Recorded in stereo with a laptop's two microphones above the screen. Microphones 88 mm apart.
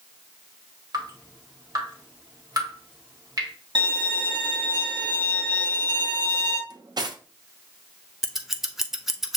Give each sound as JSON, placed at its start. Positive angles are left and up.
{"t": 0.9, "sound": "dripping", "side_deg": -50, "distance_m": 1.4}
{"t": 3.8, "sound": "a violin", "side_deg": -60, "distance_m": 1.2}
{"t": 6.7, "sound": "cutlery clinking", "side_deg": -50, "distance_m": 0.7}
{"t": 8.2, "sound": "scissors", "side_deg": -5, "distance_m": 0.7}